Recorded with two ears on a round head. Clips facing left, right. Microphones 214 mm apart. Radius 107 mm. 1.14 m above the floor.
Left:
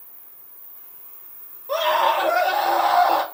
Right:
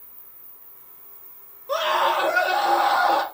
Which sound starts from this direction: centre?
A scream, at 1.7 s.